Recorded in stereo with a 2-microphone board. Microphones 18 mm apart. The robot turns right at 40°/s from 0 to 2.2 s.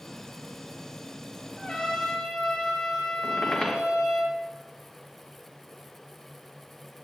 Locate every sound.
1.6 s a trumpet: 85° left, 3.5 m; by 4.2 s 65° left (ahead or behind), 3.5 m
3.2 s a squeak: 40° left (ahead or behind), 3 m